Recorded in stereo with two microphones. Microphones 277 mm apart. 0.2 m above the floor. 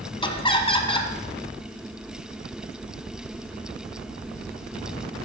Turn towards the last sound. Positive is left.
turn(degrees=20)  # may be behind; listen again after turning